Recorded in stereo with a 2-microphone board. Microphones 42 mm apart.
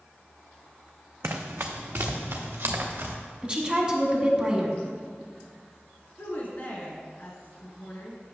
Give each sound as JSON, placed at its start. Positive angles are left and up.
{"t": 1.2, "sound": "running footsteps", "side_deg": -80, "distance_m": 0.7}
{"t": 3.4, "sound": "a woman speaking", "side_deg": -25, "distance_m": 1.1}
{"t": 6.2, "sound": "a woman speaking", "side_deg": 45, "distance_m": 2.0}